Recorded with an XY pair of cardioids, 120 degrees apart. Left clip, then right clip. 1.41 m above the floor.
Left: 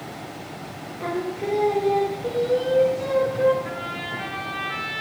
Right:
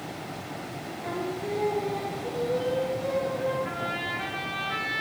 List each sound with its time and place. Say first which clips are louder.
1.0 s singing: left 5 dB; 55° left, 1.0 m
3.6 s a trumpet: left 1 dB; 5° left, 3.5 m